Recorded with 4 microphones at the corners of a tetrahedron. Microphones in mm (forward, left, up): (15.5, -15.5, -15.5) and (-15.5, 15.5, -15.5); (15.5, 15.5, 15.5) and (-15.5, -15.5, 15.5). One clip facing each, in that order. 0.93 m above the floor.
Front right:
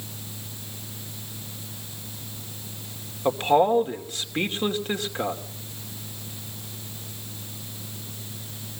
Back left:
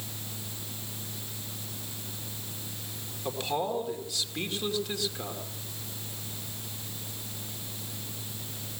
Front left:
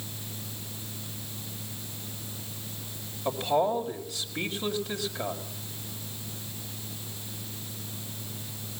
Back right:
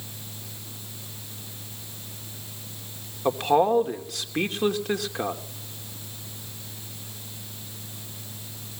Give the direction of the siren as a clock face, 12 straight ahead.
No siren in this recording.